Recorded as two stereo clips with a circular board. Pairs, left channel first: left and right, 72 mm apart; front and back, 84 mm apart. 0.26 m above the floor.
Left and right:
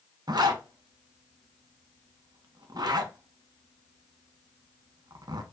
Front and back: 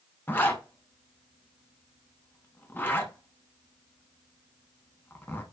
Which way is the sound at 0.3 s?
65° right.